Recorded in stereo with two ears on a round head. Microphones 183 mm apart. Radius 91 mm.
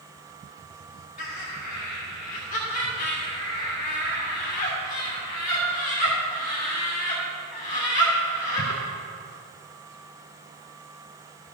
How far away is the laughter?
About 1.7 m.